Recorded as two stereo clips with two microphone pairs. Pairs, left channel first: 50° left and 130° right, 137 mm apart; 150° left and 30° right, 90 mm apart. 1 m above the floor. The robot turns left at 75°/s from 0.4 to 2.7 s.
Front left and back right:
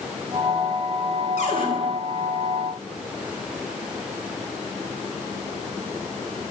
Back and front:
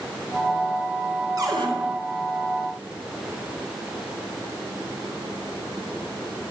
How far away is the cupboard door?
About 4 m.